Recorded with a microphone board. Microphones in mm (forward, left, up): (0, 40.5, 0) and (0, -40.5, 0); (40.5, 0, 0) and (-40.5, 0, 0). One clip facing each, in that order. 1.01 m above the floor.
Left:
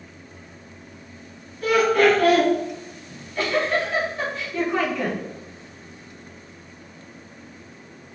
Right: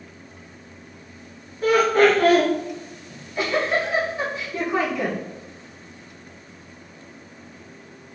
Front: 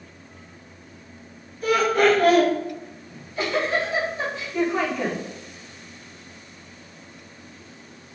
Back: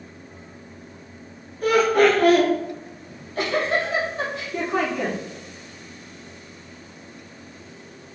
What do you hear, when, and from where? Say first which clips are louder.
1.6 s laughter: right 1 dB, back 2 dB; 150° right, 2 m
3.1 s a giggle: even, back 1 dB; 165° right, 2 m